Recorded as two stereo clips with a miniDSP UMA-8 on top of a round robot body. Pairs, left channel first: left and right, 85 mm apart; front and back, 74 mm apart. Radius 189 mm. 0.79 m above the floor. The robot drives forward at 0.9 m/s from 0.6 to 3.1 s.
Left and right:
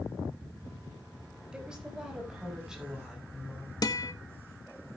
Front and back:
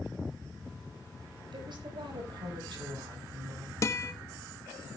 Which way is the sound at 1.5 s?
170° right.